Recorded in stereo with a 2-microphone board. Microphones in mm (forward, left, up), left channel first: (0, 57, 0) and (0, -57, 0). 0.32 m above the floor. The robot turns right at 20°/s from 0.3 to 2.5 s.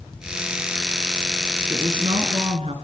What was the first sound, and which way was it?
A woman speaking, 45° right (ahead or behind).